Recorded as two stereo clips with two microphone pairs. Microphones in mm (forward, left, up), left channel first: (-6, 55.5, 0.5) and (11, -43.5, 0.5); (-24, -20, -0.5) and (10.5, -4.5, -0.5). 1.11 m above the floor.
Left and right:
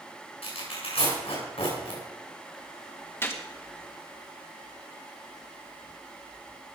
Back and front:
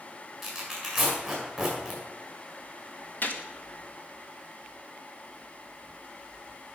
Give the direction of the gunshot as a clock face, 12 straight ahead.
7 o'clock.